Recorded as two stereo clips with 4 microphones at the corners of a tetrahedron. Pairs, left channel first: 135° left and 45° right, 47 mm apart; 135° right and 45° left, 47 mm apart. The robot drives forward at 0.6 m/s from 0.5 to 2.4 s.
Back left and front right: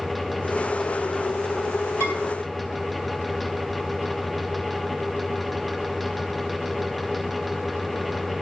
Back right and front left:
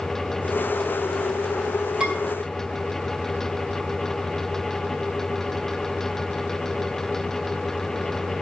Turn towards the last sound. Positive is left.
turn(degrees=120)